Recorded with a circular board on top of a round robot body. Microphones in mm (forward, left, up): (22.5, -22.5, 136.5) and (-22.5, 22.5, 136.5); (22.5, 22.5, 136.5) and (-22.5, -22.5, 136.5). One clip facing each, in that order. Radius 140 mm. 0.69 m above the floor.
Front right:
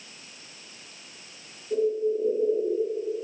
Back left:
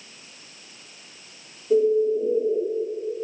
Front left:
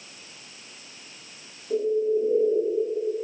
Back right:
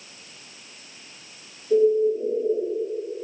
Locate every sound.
1.7 s a bird: 120° left, 1.3 m